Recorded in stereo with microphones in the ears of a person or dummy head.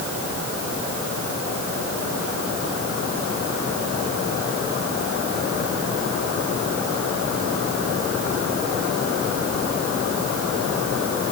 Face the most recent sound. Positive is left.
No sound to turn to.